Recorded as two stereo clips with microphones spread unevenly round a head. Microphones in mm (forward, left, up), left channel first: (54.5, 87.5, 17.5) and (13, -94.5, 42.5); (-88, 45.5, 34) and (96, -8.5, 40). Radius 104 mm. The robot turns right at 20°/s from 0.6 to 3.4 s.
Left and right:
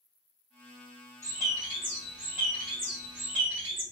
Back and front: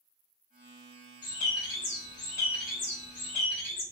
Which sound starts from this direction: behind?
A bird, at 1.2 s.